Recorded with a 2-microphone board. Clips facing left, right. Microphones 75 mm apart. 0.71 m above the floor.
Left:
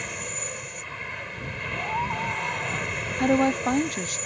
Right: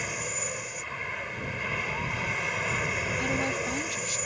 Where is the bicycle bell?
I don't hear a bicycle bell.